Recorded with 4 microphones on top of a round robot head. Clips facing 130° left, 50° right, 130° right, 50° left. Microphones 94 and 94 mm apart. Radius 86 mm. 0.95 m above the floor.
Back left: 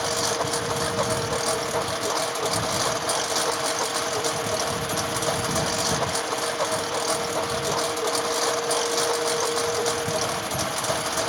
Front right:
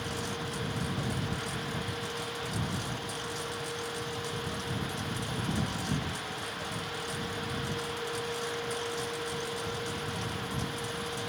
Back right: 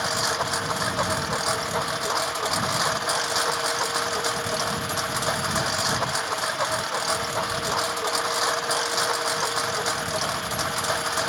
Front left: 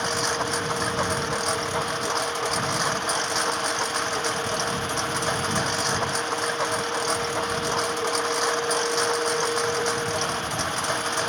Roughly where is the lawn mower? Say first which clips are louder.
Back left 11 dB, even; behind left.